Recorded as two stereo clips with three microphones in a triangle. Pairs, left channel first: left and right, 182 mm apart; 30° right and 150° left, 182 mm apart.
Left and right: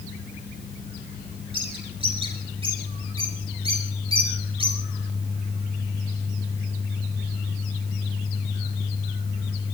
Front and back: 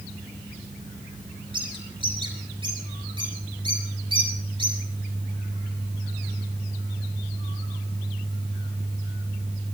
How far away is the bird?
About 5.5 m.